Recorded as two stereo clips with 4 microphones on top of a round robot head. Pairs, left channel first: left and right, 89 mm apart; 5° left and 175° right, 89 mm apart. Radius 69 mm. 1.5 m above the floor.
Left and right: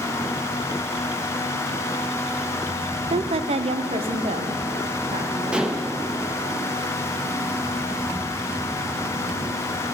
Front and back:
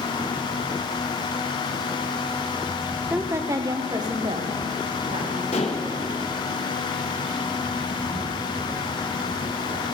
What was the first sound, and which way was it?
A woman speaking, 95° right.